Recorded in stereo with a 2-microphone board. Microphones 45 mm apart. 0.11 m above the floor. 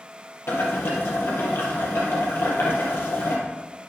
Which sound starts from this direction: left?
Boiling, at 0.5 s.